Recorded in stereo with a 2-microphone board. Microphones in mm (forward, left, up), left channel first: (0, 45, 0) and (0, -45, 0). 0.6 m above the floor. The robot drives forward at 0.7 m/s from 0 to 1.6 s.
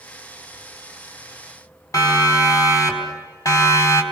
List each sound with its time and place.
1.9 s a siren: 40° left (ahead or behind), 5 m; by 4.0 s 35° left (ahead or behind), 4 m